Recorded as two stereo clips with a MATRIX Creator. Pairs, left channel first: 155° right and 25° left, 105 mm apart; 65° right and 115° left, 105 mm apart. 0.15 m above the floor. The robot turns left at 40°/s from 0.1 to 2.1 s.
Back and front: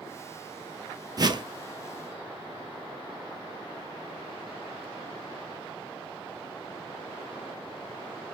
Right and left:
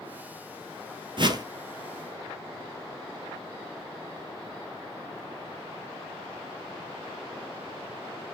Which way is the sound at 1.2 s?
75° left.